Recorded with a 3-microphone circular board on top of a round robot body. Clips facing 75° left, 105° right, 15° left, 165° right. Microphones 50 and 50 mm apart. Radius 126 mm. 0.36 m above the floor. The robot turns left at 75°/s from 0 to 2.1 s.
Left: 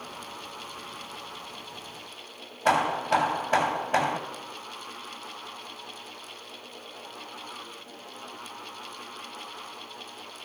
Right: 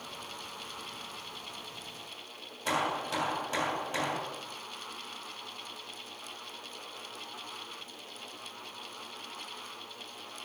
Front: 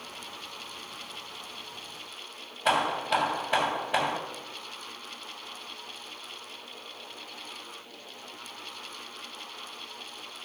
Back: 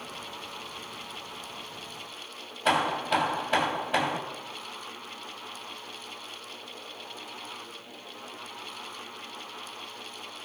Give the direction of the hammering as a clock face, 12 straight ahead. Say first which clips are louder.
Left 8 dB, even; 9 o'clock.